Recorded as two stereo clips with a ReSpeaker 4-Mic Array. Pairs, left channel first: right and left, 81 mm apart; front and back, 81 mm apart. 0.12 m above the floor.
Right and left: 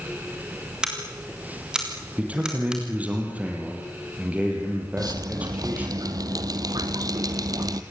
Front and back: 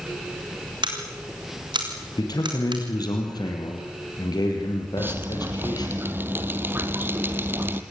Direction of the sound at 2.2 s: 20° left.